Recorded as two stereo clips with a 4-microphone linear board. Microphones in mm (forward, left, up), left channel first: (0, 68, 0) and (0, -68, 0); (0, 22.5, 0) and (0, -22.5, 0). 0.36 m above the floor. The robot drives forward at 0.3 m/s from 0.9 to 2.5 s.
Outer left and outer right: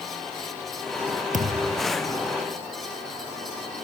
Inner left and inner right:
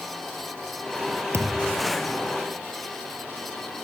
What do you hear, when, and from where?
1.3 s a thud: 75° right (ahead or behind)